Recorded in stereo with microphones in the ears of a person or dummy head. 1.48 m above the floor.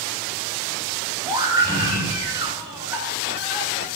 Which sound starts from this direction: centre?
A scream, at 1.2 s.